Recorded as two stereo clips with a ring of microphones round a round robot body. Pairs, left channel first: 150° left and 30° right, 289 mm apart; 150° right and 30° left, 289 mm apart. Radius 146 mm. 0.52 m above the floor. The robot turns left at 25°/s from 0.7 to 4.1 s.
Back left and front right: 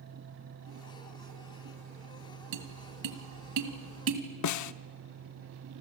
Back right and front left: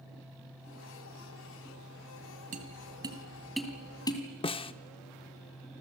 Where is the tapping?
35° right, 2.5 m; by 4.2 s 75° right, 2.5 m.